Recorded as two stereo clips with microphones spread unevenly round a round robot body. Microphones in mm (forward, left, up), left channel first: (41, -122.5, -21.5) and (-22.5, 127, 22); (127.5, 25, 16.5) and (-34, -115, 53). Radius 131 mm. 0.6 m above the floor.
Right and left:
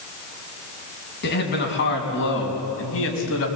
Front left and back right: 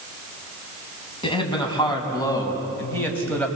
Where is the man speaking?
25° right, 5.5 m; by 3.5 s 40° right, 4.5 m.